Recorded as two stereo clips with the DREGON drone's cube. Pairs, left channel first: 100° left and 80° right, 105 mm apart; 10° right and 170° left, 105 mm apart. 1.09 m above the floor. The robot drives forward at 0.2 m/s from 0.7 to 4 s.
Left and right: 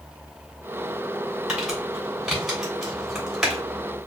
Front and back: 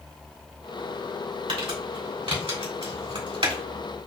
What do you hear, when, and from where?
1.5 s crumpling: 165° right, 2.5 m